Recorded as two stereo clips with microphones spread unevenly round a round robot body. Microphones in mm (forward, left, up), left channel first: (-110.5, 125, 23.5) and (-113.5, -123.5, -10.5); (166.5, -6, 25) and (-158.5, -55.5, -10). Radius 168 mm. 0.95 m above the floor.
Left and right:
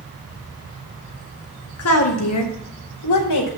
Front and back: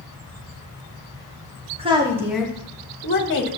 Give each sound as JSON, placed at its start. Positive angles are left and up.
{"t": 1.8, "sound": "a woman speaking", "azimuth_deg": 115, "distance_m": 2.0}